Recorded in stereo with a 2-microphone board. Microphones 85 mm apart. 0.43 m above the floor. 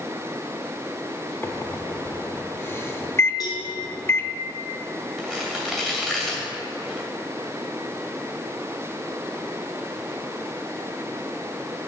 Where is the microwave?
25° left (ahead or behind), 0.6 m.